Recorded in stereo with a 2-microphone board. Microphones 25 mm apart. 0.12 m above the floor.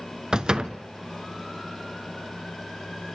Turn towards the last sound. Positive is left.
turn(degrees=-35)  # may be behind; listen again after turning